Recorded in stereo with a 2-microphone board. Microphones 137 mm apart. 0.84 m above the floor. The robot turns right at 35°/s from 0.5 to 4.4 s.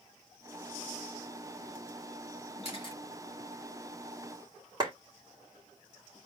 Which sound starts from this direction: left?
A camera shutter, at 2.6 s.